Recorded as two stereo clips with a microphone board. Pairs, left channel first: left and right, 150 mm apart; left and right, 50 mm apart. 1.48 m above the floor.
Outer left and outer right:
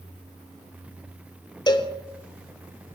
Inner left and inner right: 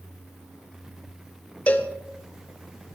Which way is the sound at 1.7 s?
30° left (ahead or behind).